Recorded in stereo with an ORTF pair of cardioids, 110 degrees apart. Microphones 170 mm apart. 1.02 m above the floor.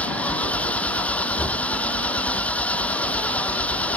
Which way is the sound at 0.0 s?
5° left.